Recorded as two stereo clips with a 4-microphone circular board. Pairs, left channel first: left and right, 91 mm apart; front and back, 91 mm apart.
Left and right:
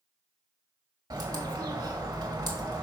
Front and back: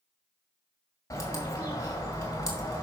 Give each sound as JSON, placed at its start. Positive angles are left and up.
{"t": 1.1, "sound": "a bird", "azimuth_deg": -55, "distance_m": 2.5}